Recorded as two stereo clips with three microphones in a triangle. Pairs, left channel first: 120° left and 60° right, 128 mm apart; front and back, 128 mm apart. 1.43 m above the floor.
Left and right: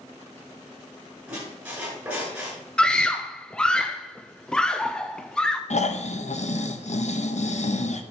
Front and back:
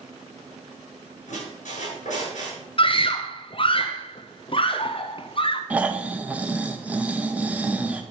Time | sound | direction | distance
1.3 | a squeak | 20° left | 7 m
2.8 | a scream | 35° left | 0.6 m
5.7 | snoring | 105° left | 1.0 m